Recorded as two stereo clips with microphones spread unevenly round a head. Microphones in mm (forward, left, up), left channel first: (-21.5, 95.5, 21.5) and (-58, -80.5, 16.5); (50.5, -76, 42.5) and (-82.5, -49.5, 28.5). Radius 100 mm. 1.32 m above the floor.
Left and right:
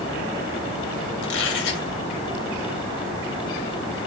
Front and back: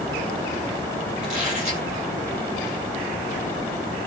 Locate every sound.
1.2 s a squeak: 85° left, 5.5 m